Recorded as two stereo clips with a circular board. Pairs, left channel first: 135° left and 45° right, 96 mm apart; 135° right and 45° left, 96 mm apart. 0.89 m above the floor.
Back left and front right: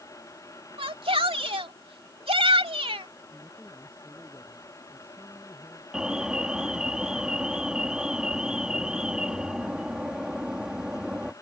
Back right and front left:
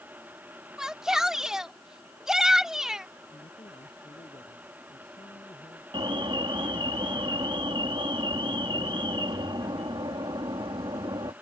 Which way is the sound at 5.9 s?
35° left.